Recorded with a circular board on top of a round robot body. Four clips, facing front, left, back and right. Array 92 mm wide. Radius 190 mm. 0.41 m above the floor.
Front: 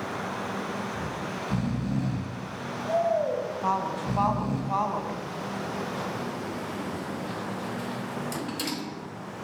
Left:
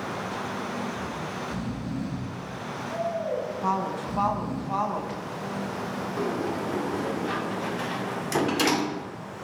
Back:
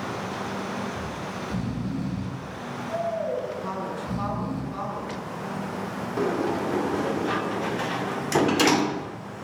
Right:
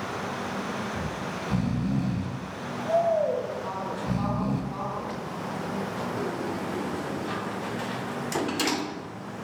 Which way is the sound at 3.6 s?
40° left.